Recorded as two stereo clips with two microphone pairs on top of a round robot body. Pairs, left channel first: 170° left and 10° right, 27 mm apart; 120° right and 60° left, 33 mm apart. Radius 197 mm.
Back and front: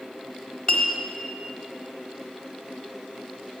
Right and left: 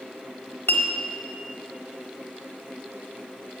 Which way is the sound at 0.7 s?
130° right.